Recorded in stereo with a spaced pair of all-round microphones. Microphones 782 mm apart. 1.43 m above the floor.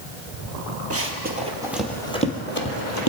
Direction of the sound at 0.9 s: 20° right (ahead or behind).